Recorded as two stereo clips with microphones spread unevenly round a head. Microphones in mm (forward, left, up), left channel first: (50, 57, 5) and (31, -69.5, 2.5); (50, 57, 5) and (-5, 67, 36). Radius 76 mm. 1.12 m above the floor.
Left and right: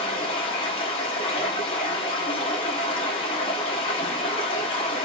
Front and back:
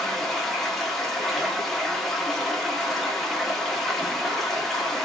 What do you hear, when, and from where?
0.0 s running water: 115° left, 0.8 m